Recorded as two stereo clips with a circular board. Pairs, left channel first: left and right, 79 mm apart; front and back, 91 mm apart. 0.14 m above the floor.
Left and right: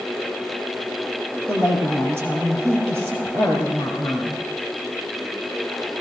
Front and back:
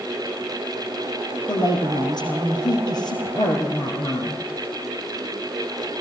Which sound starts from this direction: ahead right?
A woman speaking, at 1.5 s.